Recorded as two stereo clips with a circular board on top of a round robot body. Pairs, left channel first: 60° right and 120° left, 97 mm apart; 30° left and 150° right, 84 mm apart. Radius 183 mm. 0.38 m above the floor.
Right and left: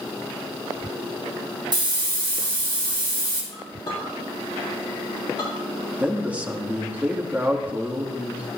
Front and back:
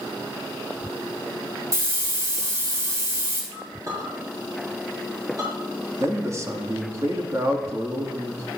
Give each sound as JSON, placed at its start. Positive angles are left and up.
{"t": 1.7, "sound": "a hiss", "azimuth_deg": 160, "distance_m": 3.0}
{"t": 3.5, "sound": "a clink", "azimuth_deg": -100, "distance_m": 5.5}
{"t": 6.0, "sound": "a man speaking", "azimuth_deg": -175, "distance_m": 1.8}